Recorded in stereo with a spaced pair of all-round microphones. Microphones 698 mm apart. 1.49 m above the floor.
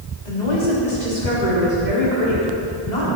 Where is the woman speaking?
80° left, 4 m; by 3.1 s 75° left (ahead or behind), 5 m.